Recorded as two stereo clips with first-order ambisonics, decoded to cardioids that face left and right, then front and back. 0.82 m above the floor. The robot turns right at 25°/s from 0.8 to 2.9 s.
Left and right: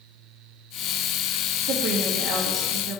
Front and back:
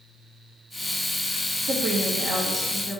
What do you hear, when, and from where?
1.6 s a woman speaking: 130° right, 1.1 m; by 3.0 s 95° right, 1.1 m